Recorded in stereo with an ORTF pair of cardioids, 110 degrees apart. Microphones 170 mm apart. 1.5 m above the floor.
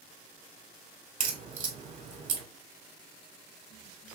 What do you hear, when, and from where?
1.2 s a crack: 50° right, 2.5 m